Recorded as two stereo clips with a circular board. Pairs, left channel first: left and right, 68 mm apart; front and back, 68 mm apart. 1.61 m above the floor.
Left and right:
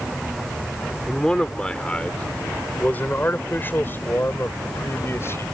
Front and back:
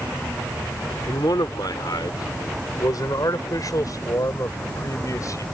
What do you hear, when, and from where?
1.1 s a man speaking: 10° left; by 5.4 s 40° left